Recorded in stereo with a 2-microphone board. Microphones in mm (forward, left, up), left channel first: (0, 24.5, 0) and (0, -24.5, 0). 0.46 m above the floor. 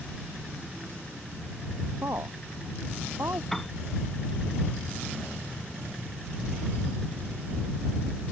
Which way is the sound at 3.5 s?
10° left (ahead or behind).